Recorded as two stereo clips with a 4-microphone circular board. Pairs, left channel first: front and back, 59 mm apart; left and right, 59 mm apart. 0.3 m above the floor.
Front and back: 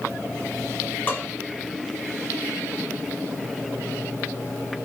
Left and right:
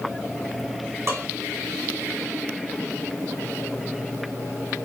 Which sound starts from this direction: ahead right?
Dishes clattering, at 1.1 s.